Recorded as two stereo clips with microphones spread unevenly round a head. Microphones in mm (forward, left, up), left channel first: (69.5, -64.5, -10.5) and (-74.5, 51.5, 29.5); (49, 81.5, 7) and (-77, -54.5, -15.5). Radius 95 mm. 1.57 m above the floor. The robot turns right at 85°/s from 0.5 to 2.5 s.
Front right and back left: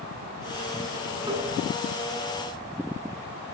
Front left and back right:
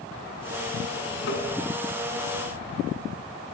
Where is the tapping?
70° left, 8.5 m; by 1.5 s 90° left, 8.5 m.